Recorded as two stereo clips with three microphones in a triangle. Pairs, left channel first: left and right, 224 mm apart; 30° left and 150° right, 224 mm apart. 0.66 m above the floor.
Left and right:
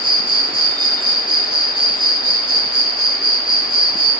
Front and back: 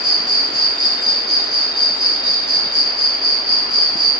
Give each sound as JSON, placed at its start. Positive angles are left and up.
{"t": 0.0, "sound": "an insect", "azimuth_deg": 125, "distance_m": 1.0}